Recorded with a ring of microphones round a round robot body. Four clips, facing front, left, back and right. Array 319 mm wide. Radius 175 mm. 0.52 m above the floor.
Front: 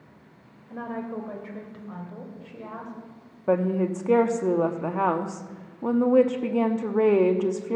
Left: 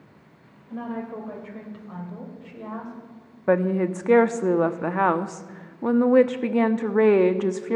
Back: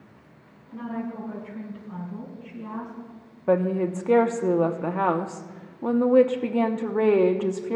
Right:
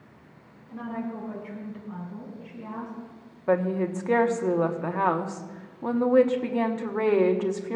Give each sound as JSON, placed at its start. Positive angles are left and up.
{"t": 0.7, "sound": "a woman speaking", "azimuth_deg": 25, "distance_m": 2.5}
{"t": 3.5, "sound": "a woman speaking", "azimuth_deg": 95, "distance_m": 0.9}